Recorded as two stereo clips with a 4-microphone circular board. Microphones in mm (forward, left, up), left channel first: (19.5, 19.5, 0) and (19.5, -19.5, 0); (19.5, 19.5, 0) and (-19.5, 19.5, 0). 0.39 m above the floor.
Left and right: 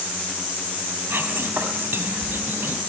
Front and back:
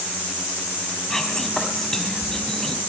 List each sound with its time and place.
1.1 s whispering: 80° right, 3.5 m